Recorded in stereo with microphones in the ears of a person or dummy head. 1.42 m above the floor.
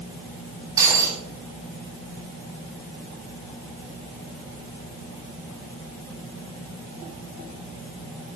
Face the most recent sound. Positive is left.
turn(degrees=-20)  # may be behind; listen again after turning